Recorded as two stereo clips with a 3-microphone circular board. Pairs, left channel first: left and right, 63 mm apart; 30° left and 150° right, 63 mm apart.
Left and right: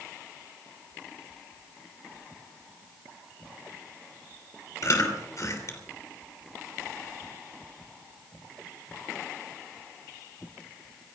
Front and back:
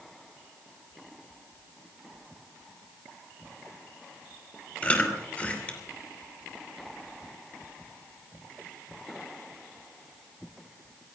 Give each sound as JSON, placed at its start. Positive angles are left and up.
{"t": 4.8, "sound": "chewing", "azimuth_deg": 95, "distance_m": 3.0}